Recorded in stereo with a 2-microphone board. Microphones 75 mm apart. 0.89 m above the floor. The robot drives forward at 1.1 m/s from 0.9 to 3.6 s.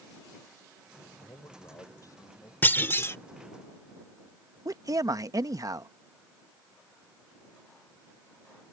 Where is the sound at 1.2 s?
65° left (ahead or behind); by 2.5 s 50° left (ahead or behind).